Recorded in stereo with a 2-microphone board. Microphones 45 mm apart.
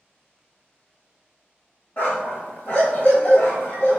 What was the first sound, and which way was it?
A dog barking, 35° left (ahead or behind).